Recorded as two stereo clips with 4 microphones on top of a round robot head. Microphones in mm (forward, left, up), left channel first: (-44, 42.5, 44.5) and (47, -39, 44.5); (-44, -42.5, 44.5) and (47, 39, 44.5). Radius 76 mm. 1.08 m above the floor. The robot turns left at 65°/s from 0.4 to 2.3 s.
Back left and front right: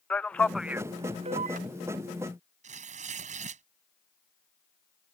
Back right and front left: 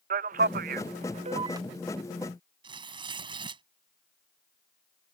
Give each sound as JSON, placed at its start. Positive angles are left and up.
{"t": 0.1, "sound": "a man speaking", "azimuth_deg": 55}
{"t": 2.6, "sound": "tearing paper", "azimuth_deg": -10}